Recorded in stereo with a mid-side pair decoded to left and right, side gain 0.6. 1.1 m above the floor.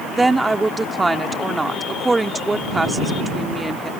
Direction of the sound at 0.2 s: 15° right.